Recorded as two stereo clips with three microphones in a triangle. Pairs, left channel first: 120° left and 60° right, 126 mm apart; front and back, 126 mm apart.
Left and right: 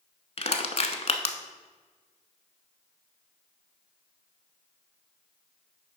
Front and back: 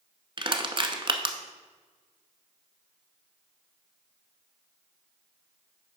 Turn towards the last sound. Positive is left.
turn(degrees=140)